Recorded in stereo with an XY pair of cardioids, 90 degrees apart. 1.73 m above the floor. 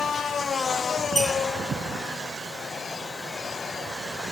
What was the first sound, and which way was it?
A squeak, straight ahead.